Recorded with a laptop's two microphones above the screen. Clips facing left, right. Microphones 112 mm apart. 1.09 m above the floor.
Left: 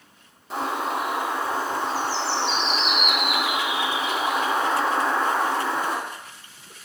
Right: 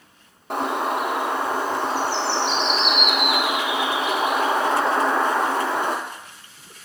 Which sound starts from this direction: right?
A bird, at 0.5 s.